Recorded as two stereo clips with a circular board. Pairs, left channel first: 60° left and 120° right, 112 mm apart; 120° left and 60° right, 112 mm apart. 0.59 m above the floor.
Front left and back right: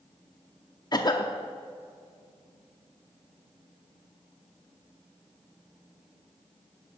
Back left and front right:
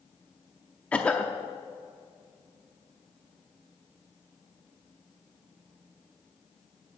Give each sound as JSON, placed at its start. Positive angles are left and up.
{"t": 0.9, "sound": "a cough", "azimuth_deg": 50, "distance_m": 0.7}